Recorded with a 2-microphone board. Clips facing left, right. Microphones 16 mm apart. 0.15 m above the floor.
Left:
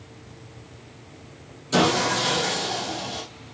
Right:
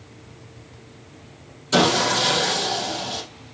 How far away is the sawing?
About 4.5 m.